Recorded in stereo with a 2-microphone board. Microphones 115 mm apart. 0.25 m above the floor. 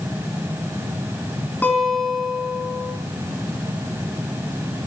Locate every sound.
1.6 s a guitar: 15° left (ahead or behind), 3 m